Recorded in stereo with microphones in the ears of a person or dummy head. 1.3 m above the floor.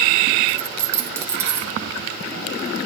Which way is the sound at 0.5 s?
15° right (ahead or behind).